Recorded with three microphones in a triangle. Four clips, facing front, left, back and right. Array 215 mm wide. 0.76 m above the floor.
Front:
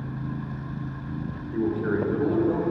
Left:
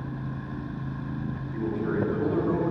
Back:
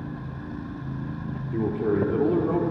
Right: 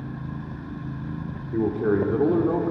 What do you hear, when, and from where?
1.5 s a man speaking: 110° right, 2 m